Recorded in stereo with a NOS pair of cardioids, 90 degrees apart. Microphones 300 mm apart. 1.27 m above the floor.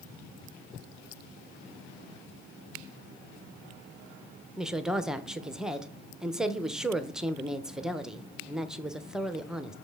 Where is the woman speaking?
Straight ahead, 0.6 m.